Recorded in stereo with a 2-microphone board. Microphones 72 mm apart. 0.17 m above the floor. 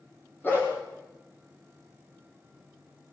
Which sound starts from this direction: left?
A dog barking, at 0.4 s.